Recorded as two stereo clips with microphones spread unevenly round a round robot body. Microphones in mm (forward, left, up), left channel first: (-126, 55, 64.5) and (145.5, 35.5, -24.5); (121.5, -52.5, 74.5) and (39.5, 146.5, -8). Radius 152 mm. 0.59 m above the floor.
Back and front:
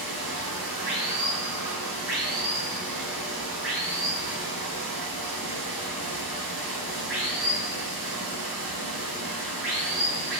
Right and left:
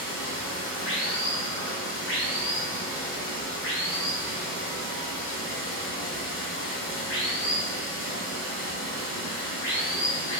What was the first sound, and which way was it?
Running water, 60° right.